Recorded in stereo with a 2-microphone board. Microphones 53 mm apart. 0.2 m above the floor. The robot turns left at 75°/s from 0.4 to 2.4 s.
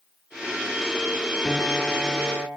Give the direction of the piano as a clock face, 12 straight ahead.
11 o'clock.